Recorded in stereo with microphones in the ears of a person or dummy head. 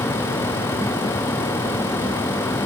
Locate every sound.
Only background noise.